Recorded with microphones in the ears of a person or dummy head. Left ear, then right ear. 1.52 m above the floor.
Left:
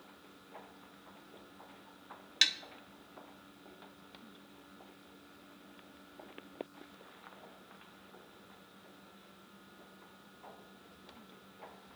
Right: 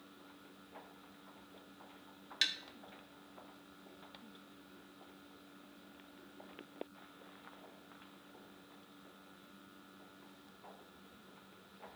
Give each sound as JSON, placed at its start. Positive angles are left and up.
{"t": 2.4, "sound": "tapping", "side_deg": 20, "distance_m": 1.0}